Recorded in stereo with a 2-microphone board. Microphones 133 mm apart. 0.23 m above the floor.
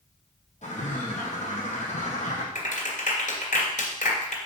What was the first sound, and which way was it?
A bird, 55° left (ahead or behind).